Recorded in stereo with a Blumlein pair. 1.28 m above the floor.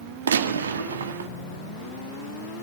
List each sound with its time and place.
0.3 s a gunshot: 65° right, 1.6 m